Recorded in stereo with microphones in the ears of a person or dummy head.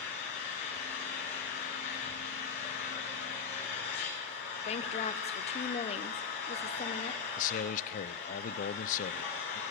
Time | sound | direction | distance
0.0 | an engine running | 70° left (ahead or behind) | 9.5 m
4.7 | a woman speaking | 35° left (ahead or behind) | 1.1 m
7.4 | a man speaking | 45° left (ahead or behind) | 0.6 m